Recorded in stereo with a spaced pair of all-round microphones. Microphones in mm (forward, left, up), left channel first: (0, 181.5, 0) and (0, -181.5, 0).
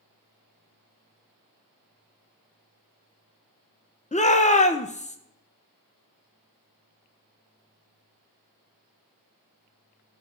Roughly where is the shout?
Centre.